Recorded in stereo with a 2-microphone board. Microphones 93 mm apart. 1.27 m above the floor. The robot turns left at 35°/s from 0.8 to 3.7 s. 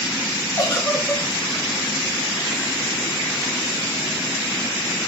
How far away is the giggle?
About 0.9 m.